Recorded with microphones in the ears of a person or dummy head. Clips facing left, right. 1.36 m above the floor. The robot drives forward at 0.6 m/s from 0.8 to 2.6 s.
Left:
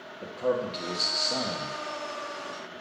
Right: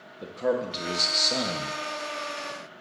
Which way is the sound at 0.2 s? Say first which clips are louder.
Right 1 dB; 15° right (ahead or behind).